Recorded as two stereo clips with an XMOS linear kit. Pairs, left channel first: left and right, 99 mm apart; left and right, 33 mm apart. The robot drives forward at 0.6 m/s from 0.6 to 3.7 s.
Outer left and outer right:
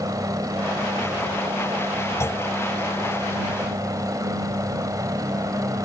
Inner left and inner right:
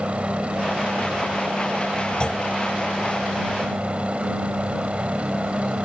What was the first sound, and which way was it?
A helicopter, 35° right (ahead or behind).